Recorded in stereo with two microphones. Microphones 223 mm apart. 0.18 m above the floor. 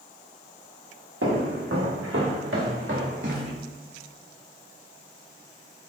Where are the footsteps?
85° right, 1.3 m; by 3.5 s 55° right (ahead or behind), 1.9 m.